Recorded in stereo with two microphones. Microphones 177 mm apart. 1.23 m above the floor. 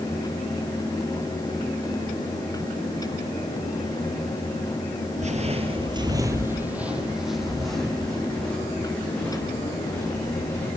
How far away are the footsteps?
About 1.5 m.